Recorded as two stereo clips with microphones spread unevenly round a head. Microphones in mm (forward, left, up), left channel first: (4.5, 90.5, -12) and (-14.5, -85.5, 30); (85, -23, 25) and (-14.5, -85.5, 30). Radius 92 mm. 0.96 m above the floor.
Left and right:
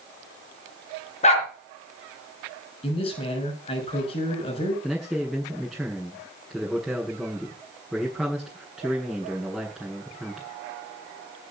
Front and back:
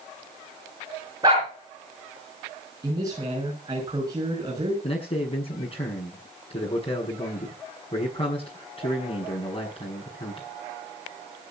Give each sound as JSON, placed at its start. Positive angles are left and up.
{"t": 1.2, "sound": "a dog barking", "azimuth_deg": 140, "distance_m": 3.0}
{"t": 2.8, "sound": "a man speaking", "azimuth_deg": 145, "distance_m": 6.0}
{"t": 4.8, "sound": "a man speaking", "azimuth_deg": -5, "distance_m": 7.5}